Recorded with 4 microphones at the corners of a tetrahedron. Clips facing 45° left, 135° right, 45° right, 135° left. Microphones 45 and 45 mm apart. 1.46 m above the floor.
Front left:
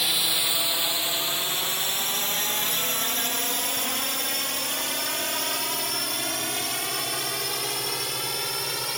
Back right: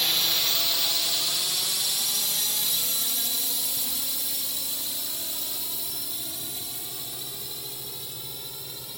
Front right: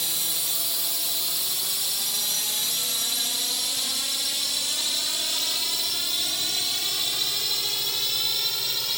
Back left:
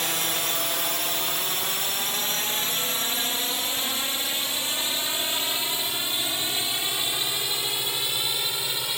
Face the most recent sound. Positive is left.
turn(degrees=65)